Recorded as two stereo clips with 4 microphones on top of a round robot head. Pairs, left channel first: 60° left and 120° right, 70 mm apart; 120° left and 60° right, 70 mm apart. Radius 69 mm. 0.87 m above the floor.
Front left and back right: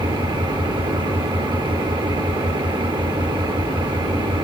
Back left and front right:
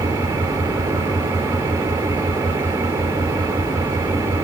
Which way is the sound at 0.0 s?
115° right.